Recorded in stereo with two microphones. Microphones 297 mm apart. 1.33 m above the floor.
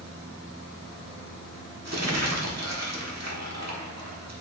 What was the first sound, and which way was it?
Crumpling, 60° right (ahead or behind).